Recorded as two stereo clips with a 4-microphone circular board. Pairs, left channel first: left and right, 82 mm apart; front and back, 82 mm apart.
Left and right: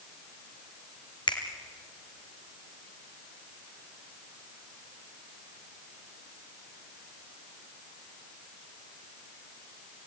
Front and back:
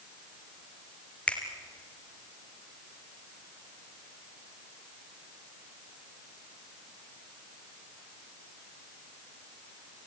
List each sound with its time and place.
1.3 s a finger snap: 75° left, 2.5 m